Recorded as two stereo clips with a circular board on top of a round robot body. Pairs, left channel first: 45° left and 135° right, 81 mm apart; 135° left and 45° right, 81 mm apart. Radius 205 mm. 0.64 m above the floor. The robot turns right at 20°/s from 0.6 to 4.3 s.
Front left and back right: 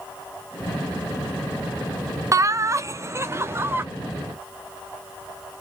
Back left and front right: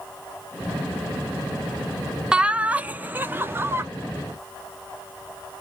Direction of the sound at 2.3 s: 115° right.